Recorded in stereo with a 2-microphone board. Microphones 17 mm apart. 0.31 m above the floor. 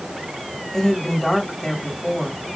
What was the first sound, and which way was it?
A woman speaking, 35° left (ahead or behind).